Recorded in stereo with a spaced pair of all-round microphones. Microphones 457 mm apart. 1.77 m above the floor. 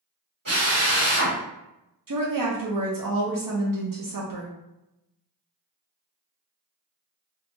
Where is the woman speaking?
45° right (ahead or behind), 0.6 m.